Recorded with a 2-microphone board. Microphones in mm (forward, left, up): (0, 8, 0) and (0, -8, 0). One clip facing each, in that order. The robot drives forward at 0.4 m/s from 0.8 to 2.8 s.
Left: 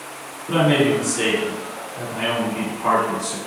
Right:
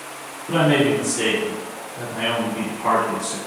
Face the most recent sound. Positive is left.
turn(degrees=40)  # may be behind; listen again after turning